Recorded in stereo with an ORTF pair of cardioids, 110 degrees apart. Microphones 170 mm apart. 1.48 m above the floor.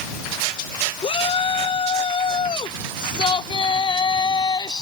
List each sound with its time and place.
1.0 s a shout: 35° left; by 4.8 s 25° left